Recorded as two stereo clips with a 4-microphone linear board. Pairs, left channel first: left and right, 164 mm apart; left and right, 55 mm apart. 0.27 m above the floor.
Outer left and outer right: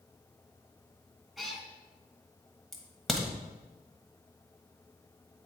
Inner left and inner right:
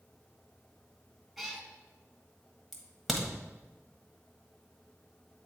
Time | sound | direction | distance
1.4 | a cat meowing | centre (ahead or behind) | 0.9 m
2.7 | a crack | centre (ahead or behind) | 1.3 m